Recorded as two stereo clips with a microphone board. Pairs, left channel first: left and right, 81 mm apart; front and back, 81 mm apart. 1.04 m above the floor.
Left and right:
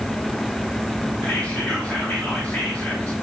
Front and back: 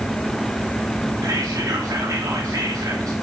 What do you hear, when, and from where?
1.2 s whispering: 155° left, 1.0 m